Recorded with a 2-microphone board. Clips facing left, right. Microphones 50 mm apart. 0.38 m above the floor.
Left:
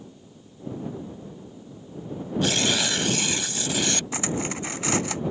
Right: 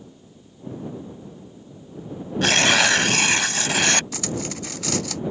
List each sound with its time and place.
2.4 s tearing paper: 70° right (ahead or behind)
4.1 s cutlery clinking: 25° left (ahead or behind)